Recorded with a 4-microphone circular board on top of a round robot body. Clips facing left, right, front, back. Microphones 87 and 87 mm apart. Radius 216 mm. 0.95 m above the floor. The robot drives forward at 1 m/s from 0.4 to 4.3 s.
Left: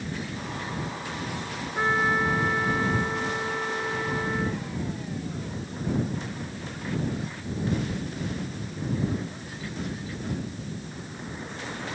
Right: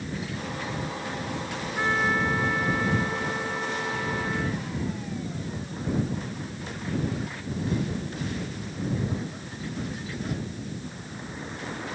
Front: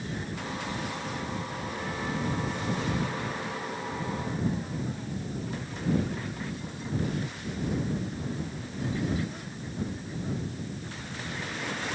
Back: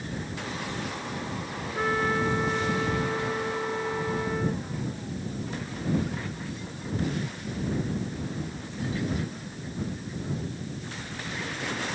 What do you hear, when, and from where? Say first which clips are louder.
1.8 s a trumpet: left 1 dB, back 9 dB; 160° left; by 4.6 s 165° left